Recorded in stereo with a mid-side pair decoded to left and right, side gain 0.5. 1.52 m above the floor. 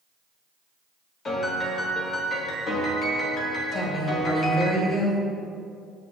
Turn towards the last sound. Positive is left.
turn(degrees=40)